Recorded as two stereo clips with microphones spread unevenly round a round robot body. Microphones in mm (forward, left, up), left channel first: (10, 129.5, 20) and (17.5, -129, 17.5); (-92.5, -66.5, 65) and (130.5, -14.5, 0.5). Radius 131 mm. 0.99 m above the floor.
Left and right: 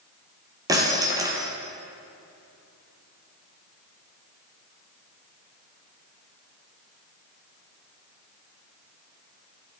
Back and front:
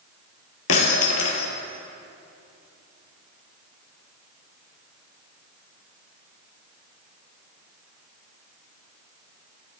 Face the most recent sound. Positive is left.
turn(degrees=-165)